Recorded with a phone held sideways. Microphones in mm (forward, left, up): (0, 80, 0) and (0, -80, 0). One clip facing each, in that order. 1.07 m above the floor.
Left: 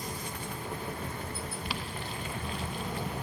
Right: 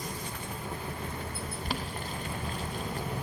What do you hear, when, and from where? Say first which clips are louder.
1.6 s boiling: right 2 dB; 40° right (ahead or behind), 0.7 m